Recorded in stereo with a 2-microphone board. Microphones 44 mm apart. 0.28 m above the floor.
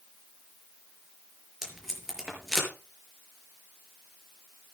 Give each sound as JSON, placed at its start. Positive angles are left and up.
{"t": 1.6, "sound": "tape being pulled", "side_deg": -15, "distance_m": 5.5}